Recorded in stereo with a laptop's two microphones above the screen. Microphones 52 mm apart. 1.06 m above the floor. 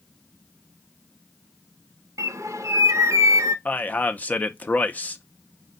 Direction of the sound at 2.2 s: 85° right.